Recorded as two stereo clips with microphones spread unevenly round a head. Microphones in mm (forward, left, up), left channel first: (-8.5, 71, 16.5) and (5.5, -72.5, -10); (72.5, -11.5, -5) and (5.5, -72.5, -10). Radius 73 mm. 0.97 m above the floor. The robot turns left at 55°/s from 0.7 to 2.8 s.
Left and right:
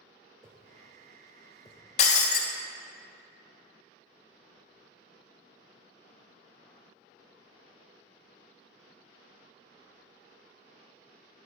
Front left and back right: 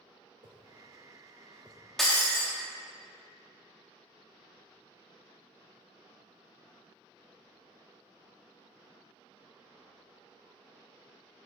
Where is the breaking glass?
130° left, 0.6 m; by 2.5 s 100° left, 0.6 m.